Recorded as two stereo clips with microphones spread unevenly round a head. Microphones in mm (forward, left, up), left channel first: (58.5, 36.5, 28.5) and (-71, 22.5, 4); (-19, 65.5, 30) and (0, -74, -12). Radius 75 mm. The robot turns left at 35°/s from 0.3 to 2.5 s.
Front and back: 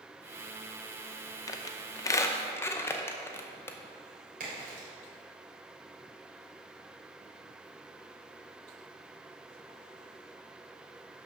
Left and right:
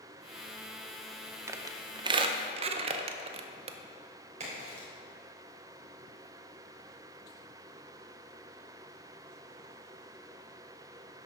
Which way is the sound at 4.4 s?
130° right.